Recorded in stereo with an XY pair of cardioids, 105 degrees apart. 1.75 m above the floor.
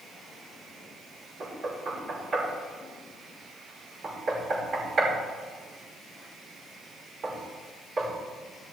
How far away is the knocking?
About 5.5 m.